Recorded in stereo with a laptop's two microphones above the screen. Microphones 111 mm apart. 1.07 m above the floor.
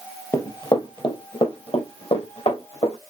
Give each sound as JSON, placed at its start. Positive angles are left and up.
{"t": 0.3, "sound": "running footsteps", "side_deg": 25, "distance_m": 1.4}